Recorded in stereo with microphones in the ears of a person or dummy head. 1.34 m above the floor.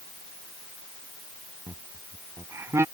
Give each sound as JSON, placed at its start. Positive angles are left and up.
{"t": 1.7, "sound": "laughter", "side_deg": -20}